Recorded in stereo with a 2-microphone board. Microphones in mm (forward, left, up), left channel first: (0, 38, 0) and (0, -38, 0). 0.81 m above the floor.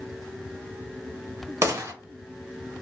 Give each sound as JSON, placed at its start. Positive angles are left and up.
{"t": 1.6, "sound": "a gunshot", "side_deg": -40, "distance_m": 1.0}